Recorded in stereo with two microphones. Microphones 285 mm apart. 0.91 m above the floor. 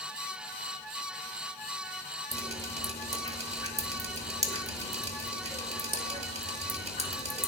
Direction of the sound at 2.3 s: 20° right (ahead or behind).